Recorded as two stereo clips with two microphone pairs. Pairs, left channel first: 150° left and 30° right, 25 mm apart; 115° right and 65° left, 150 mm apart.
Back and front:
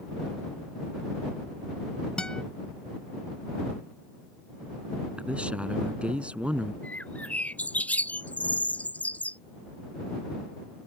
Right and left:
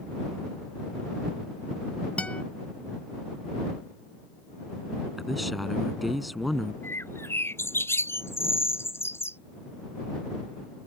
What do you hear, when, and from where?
2.2 s a guitar: 175° left
5.2 s a man speaking: 25° right
6.8 s a bird: 170° left